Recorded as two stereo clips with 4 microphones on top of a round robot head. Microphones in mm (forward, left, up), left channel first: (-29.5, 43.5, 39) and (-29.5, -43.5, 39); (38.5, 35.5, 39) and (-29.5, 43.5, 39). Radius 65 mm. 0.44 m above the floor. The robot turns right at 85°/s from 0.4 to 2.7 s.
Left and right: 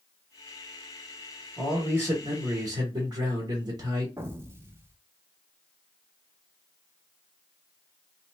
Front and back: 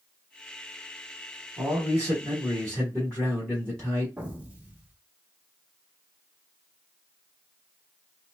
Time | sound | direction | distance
1.6 | a man speaking | 175° left | 1.4 m
4.2 | an explosion | 125° right | 0.7 m